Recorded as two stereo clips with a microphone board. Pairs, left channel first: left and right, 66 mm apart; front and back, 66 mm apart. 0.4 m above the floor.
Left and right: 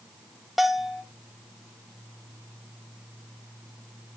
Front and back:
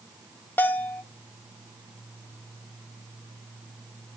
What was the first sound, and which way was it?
A bell, 5° right.